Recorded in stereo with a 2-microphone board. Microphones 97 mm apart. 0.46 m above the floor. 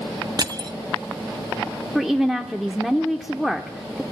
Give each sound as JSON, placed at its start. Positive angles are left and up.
{"t": 0.4, "sound": "crushing", "side_deg": -45, "distance_m": 0.7}
{"t": 1.9, "sound": "a woman speaking", "side_deg": -5, "distance_m": 1.0}